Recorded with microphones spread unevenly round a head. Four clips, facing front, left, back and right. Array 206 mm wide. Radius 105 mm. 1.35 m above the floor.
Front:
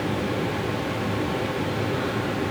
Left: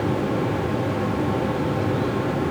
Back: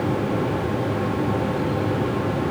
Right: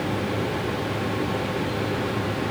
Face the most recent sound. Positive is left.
No sound to turn to.